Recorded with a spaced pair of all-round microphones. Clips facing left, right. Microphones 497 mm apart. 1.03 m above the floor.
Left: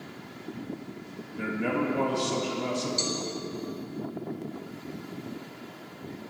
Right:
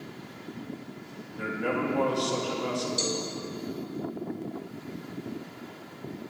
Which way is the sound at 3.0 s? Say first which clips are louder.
Right 2 dB; 55° right (ahead or behind).